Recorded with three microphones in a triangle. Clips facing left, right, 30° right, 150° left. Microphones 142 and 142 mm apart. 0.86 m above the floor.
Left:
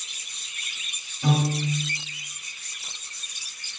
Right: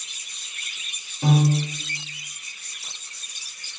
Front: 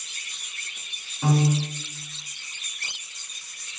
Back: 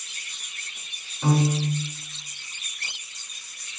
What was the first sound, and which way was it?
A piano, 110° right.